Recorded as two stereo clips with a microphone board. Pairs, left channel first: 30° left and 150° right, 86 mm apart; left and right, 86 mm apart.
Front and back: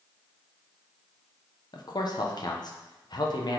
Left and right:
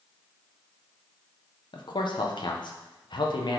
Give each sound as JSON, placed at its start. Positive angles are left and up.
{"t": 1.7, "sound": "a man speaking", "azimuth_deg": 65, "distance_m": 1.1}